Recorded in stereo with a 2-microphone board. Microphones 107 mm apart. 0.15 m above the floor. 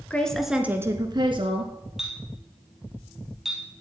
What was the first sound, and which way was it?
A woman speaking, 15° left (ahead or behind).